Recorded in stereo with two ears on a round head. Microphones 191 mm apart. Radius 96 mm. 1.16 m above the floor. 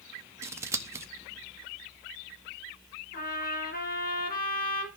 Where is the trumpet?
45° left (ahead or behind), 6 m.